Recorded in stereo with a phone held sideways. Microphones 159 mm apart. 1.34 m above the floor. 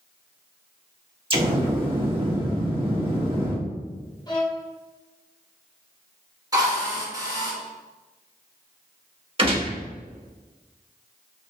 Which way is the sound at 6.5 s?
25° right (ahead or behind).